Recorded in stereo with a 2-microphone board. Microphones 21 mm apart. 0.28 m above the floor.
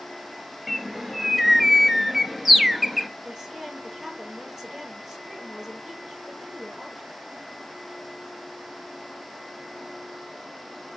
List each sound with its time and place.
0.7 s a bird: 10° right (ahead or behind), 1.5 m
3.2 s a woman speaking: 20° right (ahead or behind), 6.5 m